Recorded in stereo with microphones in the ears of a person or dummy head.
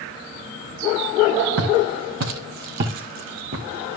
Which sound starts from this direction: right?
Footsteps, at 1.6 s.